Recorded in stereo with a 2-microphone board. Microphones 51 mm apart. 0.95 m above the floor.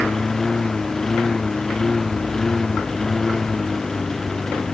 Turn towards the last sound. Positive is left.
turn(degrees=10)  # may be behind; listen again after turning